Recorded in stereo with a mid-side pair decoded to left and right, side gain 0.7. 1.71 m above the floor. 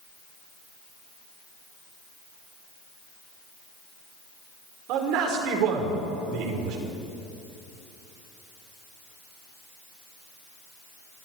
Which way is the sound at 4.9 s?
65° right.